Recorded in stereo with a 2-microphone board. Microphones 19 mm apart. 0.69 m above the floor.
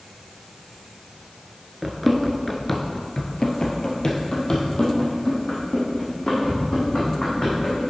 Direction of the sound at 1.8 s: 10° right (ahead or behind).